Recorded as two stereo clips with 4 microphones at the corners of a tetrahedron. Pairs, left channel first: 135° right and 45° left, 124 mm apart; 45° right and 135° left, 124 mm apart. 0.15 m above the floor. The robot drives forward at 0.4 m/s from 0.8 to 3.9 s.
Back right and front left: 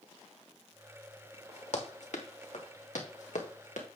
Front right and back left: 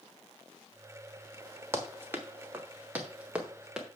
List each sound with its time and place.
1.7 s running footsteps: 155° right, 2.0 m; by 3.9 s 140° right, 2.5 m